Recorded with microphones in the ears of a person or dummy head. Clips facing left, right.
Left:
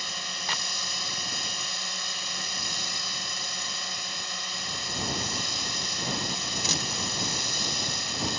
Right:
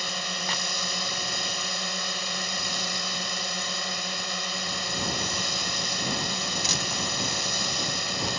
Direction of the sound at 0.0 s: 55° right (ahead or behind).